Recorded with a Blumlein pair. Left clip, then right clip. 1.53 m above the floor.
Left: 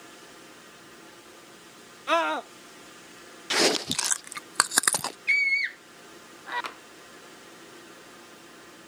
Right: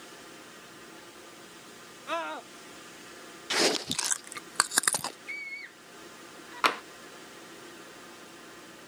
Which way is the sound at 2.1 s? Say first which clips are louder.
Left 9 dB; 25° left.